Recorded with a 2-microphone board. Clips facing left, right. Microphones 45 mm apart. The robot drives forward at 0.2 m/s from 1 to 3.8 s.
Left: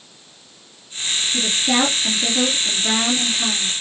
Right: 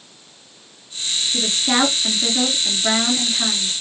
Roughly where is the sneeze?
No sneeze in this recording.